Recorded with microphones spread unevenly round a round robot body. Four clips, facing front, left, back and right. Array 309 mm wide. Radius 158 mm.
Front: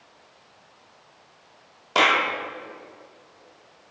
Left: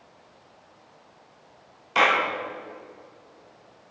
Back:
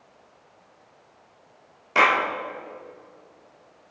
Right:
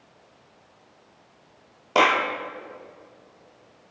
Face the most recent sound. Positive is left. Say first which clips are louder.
# right 2 dB, back 1 dB
turn(degrees=-75)